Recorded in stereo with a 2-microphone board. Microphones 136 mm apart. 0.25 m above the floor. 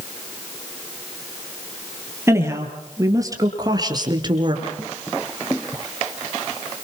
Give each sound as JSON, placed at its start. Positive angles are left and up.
{"t": 2.3, "sound": "a woman speaking", "side_deg": -20, "distance_m": 4.5}